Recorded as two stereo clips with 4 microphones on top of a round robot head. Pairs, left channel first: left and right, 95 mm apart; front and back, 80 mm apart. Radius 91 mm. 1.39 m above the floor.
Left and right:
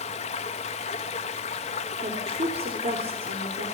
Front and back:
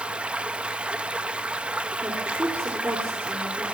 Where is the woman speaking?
115° right, 4.5 m.